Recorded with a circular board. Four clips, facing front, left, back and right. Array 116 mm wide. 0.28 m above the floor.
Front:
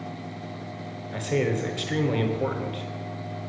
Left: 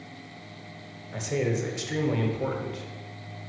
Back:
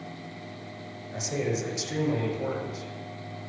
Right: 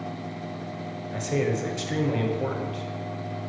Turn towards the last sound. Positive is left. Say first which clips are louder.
# right 1 dB, front 4 dB
turn(degrees=-5)